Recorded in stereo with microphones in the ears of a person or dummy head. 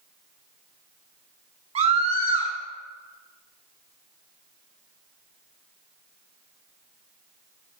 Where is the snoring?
No snoring in this recording.